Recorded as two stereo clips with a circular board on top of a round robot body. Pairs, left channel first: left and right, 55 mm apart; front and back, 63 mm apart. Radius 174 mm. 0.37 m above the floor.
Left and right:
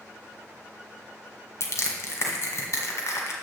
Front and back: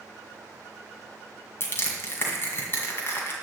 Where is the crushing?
50° left, 1.7 m.